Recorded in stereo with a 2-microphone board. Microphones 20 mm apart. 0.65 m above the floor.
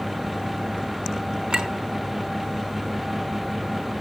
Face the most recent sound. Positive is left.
turn(degrees=-45)  # may be behind; listen again after turning